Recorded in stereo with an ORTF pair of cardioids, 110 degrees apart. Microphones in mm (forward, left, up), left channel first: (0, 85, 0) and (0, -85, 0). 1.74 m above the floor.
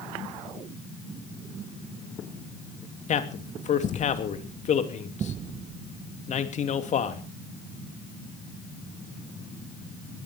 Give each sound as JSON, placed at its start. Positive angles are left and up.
{"t": 3.1, "sound": "a man speaking", "azimuth_deg": 45, "distance_m": 2.5}